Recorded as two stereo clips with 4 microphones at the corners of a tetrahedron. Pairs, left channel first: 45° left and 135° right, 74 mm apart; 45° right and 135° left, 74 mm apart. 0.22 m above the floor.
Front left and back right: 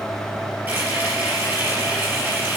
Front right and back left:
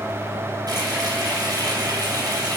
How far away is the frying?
About 4 m.